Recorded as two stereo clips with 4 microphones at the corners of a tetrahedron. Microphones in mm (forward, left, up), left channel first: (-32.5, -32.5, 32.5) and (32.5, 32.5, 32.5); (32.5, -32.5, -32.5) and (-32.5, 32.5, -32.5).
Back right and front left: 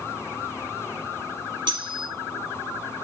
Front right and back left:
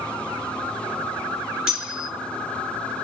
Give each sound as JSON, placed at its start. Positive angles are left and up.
{"t": 1.7, "sound": "cutlery clinking", "azimuth_deg": 55, "distance_m": 1.1}